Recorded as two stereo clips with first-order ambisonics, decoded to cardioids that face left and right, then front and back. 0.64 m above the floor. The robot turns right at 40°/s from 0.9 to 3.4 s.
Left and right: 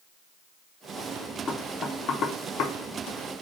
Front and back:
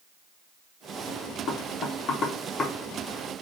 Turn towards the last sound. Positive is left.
turn(degrees=100)